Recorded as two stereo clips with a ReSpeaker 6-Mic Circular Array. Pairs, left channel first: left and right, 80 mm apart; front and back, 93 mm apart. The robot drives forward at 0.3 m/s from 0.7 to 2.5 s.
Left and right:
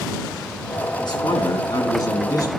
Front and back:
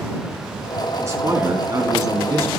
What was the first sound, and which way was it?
A man speaking, 120° left.